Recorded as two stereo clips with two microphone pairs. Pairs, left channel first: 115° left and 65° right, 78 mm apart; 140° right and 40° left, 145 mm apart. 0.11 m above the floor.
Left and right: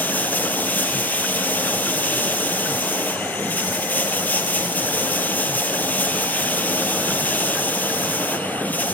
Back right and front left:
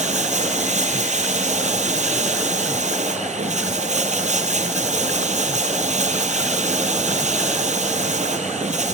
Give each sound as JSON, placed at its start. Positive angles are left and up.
{"t": 0.0, "sound": "running water", "azimuth_deg": 55, "distance_m": 2.5}